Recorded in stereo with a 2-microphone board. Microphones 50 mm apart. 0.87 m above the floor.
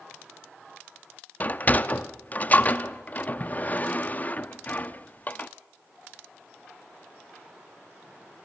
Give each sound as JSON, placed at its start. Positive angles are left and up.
{"t": 1.4, "sound": "a sliding door", "side_deg": 35, "distance_m": 0.7}